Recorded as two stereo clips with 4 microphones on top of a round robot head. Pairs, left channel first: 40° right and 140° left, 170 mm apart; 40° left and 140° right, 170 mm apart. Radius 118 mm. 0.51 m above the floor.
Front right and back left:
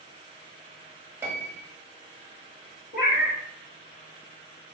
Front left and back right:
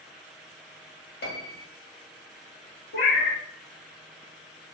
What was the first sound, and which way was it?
A piano, 65° left.